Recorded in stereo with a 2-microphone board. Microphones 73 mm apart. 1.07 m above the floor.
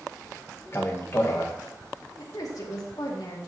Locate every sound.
0.7 s a man speaking: 35° left (ahead or behind), 1.0 m
2.2 s a woman speaking: 60° left (ahead or behind), 2 m